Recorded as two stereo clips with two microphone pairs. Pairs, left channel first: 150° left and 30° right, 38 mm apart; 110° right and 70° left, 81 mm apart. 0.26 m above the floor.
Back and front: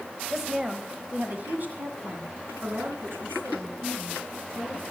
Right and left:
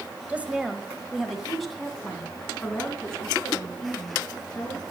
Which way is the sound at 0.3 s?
45° left.